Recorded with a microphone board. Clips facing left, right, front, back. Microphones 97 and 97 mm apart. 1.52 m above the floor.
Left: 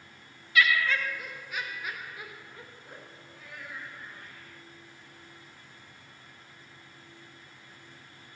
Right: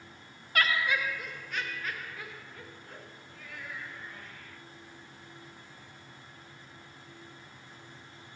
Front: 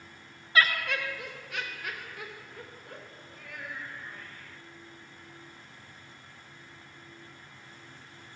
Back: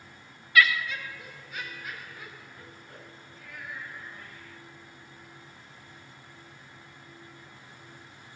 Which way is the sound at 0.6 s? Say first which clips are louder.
Left 3 dB, back 2 dB; 55° right.